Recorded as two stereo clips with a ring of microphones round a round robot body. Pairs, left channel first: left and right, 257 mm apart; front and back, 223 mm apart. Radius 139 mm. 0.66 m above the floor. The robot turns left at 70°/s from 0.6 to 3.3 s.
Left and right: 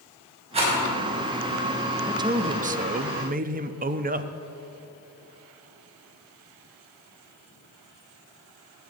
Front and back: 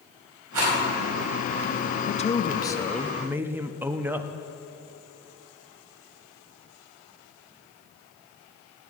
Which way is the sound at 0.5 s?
155° right.